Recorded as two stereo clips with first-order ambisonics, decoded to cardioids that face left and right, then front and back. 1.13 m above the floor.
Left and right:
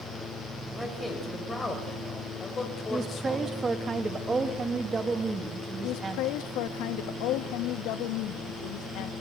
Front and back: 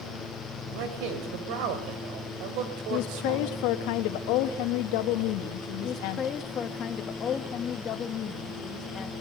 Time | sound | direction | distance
0.7 | a man speaking | 175° left | 5.5 m
2.9 | a woman speaking | 15° right | 2 m
5.8 | a woman speaking | 65° left | 1.7 m